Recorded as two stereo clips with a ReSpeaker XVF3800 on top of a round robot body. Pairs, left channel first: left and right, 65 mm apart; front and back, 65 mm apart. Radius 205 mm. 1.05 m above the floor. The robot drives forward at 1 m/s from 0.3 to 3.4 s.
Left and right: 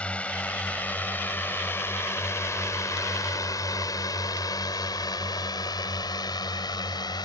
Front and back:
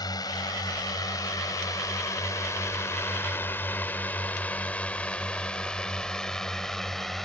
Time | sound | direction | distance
0.0 | a drone | 20° left | ?